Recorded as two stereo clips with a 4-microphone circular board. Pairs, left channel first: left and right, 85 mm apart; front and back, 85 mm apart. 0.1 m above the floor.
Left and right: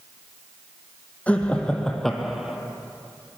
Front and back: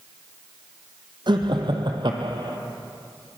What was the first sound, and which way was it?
Laughter, 165° left.